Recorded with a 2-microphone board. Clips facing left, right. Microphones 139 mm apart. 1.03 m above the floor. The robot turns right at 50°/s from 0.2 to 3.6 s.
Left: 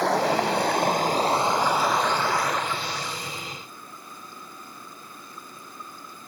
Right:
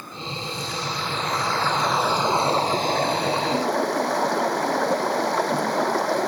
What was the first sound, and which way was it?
Running water, 95° left.